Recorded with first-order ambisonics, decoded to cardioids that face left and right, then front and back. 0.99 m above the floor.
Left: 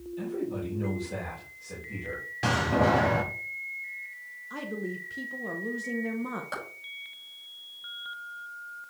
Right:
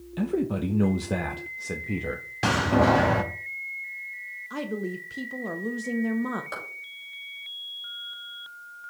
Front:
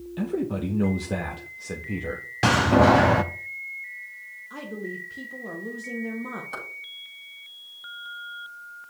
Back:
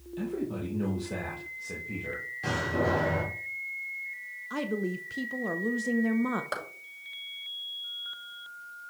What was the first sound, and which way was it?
A man speaking, 65° right.